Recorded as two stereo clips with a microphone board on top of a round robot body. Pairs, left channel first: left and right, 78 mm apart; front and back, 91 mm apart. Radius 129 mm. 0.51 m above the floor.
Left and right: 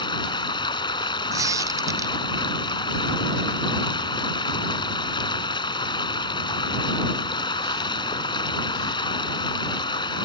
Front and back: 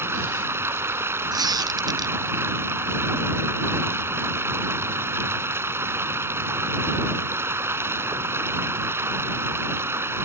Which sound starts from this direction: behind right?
A squeak, at 1.3 s.